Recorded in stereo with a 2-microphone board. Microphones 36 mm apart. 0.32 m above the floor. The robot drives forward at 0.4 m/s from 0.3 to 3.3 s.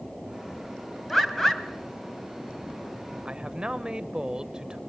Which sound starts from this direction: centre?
A bird, at 1.1 s.